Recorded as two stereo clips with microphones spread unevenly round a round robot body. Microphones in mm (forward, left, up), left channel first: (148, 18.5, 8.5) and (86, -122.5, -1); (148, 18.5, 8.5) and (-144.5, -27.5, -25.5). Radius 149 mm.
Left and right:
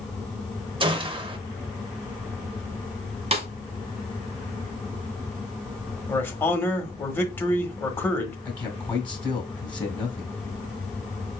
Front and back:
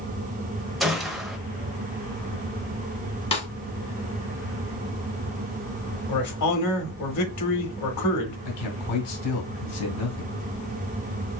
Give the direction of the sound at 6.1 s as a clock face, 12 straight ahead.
12 o'clock.